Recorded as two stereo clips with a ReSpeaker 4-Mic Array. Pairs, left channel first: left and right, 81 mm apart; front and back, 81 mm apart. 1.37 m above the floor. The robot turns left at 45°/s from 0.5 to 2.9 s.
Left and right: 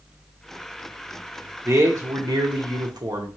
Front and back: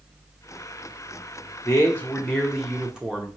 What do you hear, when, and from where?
1.6 s a man speaking: 45° right, 0.9 m; by 3.3 s 100° right, 0.9 m